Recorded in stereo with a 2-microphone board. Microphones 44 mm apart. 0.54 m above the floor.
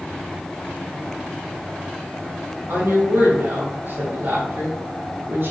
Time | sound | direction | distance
2.7 | a woman speaking | 60° right (ahead or behind) | 3 m